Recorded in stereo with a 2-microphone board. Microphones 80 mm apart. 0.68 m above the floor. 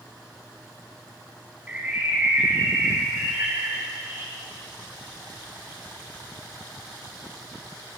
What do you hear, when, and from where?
1.7 s a bird: 15° right (ahead or behind), 3 m